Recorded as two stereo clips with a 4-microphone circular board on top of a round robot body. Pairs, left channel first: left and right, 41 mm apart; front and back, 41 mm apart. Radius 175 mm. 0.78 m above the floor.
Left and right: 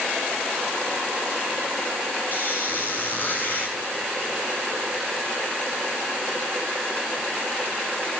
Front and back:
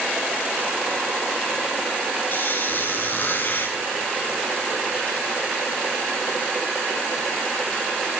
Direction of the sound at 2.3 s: 45° left.